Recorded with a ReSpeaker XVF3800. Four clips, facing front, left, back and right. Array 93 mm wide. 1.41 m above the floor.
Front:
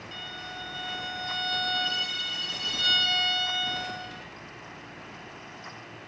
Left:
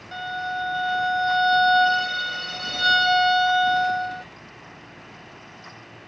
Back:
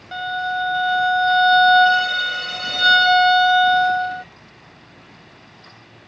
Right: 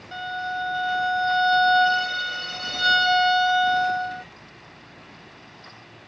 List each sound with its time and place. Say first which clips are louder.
0.1 s a violin: even, back 20 dB; straight behind